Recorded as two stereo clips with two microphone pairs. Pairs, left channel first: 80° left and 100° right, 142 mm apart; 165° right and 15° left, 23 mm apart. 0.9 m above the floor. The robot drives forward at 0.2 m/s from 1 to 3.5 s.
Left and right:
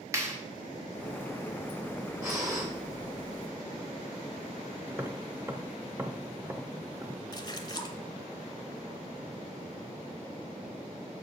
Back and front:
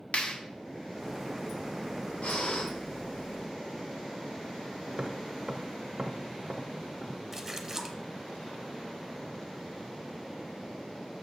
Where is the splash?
75° left, 0.8 m.